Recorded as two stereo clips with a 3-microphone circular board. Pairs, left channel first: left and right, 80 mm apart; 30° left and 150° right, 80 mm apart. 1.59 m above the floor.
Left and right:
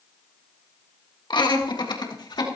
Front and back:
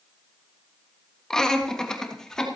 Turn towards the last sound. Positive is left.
turn(degrees=115)